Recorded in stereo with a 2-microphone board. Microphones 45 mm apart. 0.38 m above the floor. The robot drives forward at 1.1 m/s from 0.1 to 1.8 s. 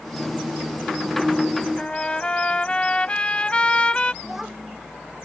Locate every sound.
1.8 s a trumpet: 25° left (ahead or behind)
4.2 s a child speaking: 5° right (ahead or behind)